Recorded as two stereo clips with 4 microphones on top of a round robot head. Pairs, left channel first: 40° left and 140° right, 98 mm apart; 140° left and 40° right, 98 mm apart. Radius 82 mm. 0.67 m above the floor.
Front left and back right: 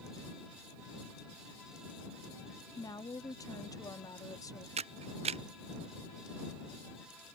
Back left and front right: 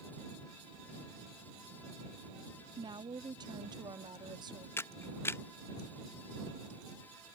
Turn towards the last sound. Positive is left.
turn(degrees=-150)